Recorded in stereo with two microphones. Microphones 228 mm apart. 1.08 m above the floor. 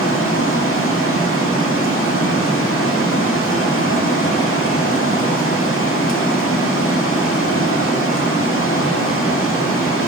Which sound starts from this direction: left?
Running water, at 0.0 s.